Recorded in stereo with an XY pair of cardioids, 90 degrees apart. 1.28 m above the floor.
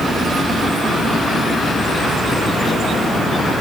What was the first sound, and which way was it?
Only background noise.